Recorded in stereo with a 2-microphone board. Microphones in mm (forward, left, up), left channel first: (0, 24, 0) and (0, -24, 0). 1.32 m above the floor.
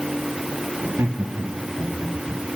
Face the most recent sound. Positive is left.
turn(degrees=-90)